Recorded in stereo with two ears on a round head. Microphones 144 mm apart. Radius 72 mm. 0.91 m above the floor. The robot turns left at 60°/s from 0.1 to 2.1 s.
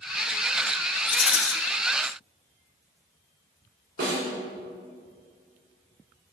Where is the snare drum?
60° right (ahead or behind), 2.5 m.